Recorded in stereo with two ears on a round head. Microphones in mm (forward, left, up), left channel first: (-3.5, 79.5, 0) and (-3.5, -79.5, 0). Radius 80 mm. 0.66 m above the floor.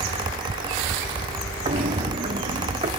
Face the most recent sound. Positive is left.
turn(degrees=-30)  # may be behind; listen again after turning